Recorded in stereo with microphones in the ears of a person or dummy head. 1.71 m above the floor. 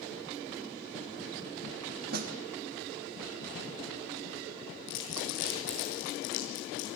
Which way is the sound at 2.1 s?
55° right (ahead or behind).